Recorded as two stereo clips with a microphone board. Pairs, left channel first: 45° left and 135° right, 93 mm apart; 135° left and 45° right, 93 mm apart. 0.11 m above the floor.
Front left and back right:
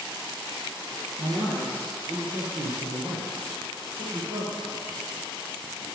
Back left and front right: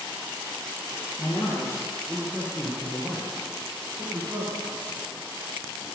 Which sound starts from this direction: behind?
A man speaking, at 1.2 s.